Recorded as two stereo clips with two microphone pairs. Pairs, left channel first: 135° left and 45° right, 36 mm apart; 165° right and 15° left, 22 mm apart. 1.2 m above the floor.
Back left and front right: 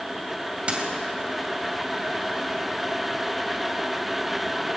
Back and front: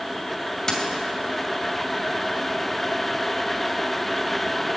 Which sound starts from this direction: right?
A dropped coin, at 0.7 s.